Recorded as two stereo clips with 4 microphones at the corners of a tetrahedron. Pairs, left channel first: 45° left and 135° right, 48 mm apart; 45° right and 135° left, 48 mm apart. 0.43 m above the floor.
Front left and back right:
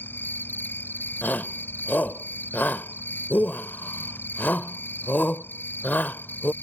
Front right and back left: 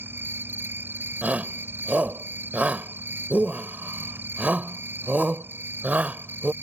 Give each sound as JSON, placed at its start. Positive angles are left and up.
{"t": 0.0, "sound": "an insect", "azimuth_deg": 90}
{"t": 1.2, "sound": "a shout", "azimuth_deg": 85}